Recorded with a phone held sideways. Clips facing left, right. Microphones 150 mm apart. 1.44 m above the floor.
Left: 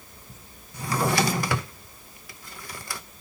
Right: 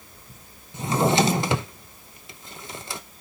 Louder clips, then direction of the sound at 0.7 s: Right 4 dB; 25° right (ahead or behind).